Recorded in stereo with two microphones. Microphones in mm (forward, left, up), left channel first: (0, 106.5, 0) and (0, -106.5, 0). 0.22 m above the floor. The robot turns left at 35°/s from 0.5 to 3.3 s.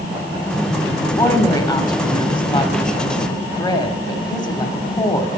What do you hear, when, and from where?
1.0 s a woman speaking: 15° left (ahead or behind), 1.0 m; by 5.3 s 20° left (ahead or behind), 1.0 m